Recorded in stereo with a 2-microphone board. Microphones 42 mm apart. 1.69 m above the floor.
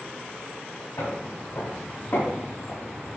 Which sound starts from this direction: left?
Footsteps, at 1.0 s.